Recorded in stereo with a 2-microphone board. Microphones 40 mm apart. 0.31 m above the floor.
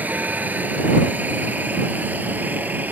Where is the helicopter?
40° right (ahead or behind); by 2.9 s 45° right (ahead or behind).